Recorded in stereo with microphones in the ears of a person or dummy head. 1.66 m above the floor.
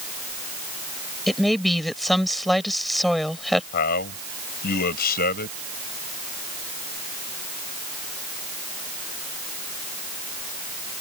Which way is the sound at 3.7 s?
55° left (ahead or behind).